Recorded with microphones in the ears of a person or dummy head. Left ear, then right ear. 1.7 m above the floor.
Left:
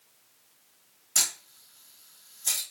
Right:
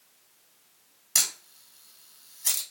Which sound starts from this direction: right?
A camera shutter, at 1.1 s.